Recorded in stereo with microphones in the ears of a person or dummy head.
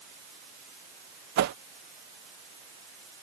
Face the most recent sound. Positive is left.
turn(degrees=-55)  # may be behind; listen again after turning